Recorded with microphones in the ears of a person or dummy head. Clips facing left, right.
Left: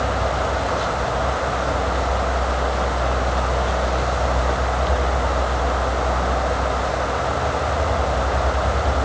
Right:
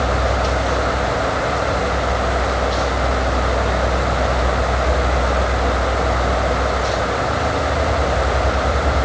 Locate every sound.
Only background noise.